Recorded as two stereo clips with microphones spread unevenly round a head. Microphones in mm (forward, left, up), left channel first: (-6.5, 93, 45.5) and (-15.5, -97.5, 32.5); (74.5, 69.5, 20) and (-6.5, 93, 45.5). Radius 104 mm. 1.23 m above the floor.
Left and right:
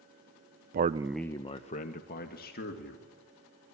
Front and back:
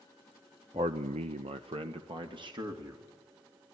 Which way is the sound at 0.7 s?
135° right.